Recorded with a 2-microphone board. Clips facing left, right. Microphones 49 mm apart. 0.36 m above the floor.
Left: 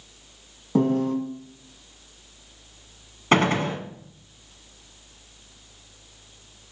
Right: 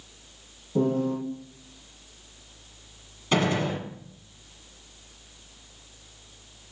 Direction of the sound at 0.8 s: 75° left (ahead or behind).